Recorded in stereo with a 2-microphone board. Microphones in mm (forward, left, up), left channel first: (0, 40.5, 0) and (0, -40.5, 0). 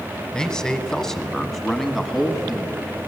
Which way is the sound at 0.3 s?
10° left (ahead or behind).